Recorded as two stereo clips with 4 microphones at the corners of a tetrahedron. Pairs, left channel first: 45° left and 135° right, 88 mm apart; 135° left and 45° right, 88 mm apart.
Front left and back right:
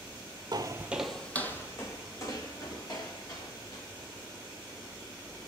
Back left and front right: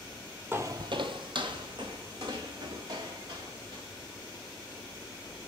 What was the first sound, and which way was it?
Footsteps, 110° right.